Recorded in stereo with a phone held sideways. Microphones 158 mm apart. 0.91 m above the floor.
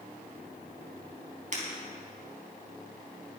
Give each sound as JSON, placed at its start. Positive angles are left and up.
{"t": 1.5, "sound": "breaking glass", "side_deg": -50, "distance_m": 3.5}